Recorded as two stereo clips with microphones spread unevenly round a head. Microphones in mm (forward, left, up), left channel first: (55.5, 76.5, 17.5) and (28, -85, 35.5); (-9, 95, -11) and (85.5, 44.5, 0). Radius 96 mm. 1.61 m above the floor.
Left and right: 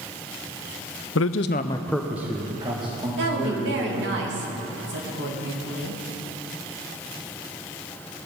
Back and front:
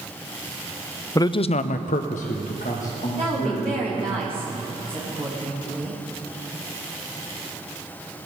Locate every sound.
1.1 s a man speaking: 90° left, 0.7 m; by 4.2 s 160° right, 3.5 m
3.2 s a woman speaking: 90° right, 3 m